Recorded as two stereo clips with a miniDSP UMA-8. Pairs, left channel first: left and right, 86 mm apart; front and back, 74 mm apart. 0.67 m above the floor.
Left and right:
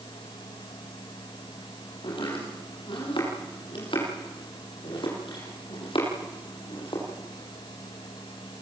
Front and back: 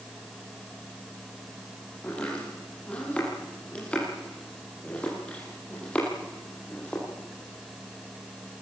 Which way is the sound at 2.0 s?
75° left.